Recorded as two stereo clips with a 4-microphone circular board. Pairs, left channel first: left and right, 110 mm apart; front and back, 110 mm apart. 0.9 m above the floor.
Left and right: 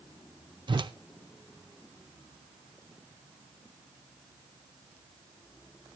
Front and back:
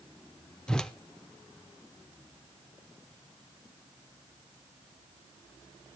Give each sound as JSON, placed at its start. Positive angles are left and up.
{"t": 0.7, "sound": "a whoosh", "azimuth_deg": -80, "distance_m": 0.6}